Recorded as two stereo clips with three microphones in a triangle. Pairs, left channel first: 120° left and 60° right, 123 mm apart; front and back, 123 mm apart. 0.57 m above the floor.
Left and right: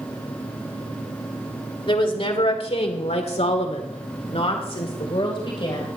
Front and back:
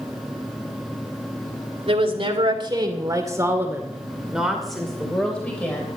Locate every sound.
1.9 s a woman speaking: 155° left, 2.5 m; by 5.9 s 75° left, 3 m